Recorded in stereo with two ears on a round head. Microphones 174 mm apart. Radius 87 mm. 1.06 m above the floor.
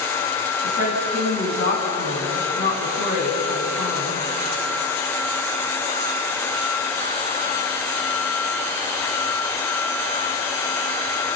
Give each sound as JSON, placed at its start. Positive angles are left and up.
{"t": 0.6, "sound": "a woman speaking", "side_deg": 50, "distance_m": 9.5}